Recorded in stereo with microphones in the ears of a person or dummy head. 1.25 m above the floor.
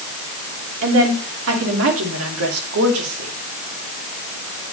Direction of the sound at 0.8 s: 70° right (ahead or behind).